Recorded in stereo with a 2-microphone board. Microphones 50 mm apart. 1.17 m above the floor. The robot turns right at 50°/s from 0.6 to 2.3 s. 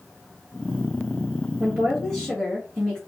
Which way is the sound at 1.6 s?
40° right.